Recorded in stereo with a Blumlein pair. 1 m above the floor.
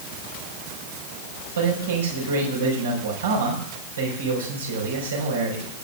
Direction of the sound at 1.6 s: 65° right.